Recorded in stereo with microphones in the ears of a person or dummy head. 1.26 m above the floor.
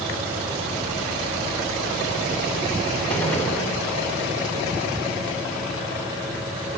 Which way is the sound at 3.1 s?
10° left (ahead or behind).